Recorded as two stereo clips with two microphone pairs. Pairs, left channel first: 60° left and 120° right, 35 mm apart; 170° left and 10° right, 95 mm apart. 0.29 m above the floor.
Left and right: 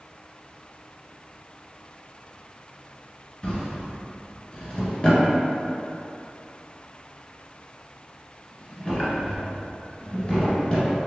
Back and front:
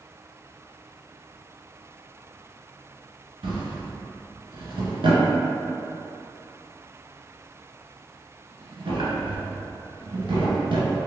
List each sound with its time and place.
3.4 s a drawer: 5° right, 1.2 m